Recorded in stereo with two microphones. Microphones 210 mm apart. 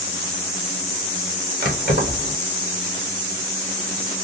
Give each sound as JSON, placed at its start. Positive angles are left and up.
{"t": 1.6, "sound": "keys jangling", "side_deg": -45, "distance_m": 1.0}